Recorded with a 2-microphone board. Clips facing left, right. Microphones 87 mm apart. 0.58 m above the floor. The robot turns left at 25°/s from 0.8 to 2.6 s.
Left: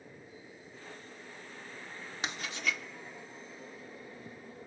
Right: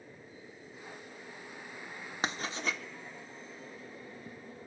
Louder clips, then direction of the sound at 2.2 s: Right 2 dB; 40° right (ahead or behind).